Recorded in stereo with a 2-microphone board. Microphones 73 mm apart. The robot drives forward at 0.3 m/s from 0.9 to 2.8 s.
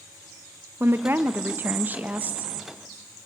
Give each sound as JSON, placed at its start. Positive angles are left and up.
{"t": 0.8, "sound": "a woman speaking", "side_deg": -30, "distance_m": 0.8}